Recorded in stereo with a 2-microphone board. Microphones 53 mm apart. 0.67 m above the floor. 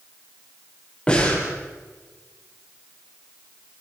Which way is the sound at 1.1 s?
20° left (ahead or behind).